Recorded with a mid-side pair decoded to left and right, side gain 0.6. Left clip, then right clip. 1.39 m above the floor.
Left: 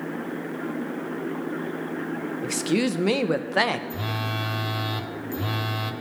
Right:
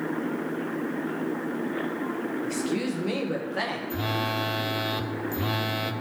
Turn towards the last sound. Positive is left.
turn(degrees=-5)